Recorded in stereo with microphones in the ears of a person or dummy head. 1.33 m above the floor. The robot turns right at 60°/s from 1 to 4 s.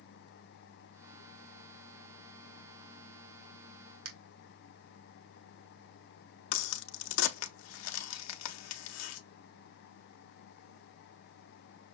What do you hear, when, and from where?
4.0 s a finger snap: 80° right, 1.7 m
6.5 s a crack: 80° left, 0.7 m